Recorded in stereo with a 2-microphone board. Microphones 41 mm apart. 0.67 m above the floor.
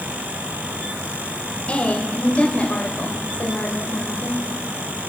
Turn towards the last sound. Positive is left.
turn(degrees=35)  # may be behind; listen again after turning